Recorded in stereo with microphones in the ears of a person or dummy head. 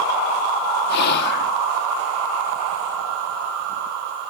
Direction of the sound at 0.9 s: 65° left (ahead or behind).